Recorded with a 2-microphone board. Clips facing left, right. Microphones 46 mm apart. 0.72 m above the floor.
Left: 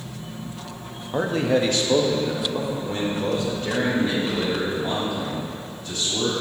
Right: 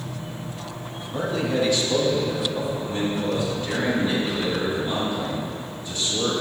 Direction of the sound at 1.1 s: 30° left (ahead or behind).